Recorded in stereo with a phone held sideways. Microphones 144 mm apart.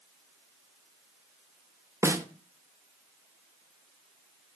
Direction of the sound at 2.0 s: 20° right (ahead or behind).